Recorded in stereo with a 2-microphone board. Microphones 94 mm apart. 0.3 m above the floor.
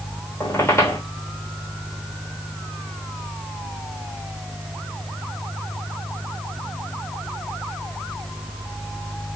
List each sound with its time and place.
0.4 s a squeak: 30° left (ahead or behind), 1.1 m